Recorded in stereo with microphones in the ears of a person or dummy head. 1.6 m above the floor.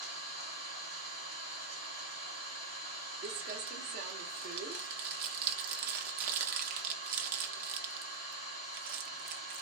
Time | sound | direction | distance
0.0 | an engine running | 10° right (ahead or behind) | 1.7 m
3.2 | crumpling | 45° right (ahead or behind) | 0.5 m